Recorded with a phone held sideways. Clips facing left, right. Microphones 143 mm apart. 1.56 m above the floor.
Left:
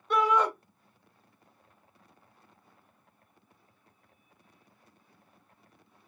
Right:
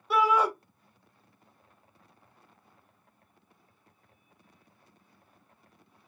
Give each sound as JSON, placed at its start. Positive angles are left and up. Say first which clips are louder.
{"t": 0.1, "sound": "a shout", "louder": "right 1 dB", "side_deg": -5, "distance_m": 0.8}